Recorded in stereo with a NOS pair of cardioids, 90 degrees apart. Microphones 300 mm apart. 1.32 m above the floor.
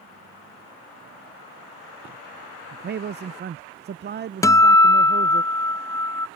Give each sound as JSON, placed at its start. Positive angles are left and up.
{"t": 2.7, "sound": "a man speaking", "azimuth_deg": -35}
{"t": 4.4, "sound": "a guitar", "azimuth_deg": 10}